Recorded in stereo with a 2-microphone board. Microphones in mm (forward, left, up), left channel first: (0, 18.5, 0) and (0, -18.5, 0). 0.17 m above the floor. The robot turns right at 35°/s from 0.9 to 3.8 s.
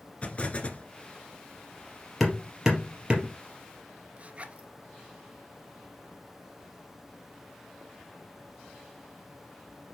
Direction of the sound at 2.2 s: Centre (ahead or behind).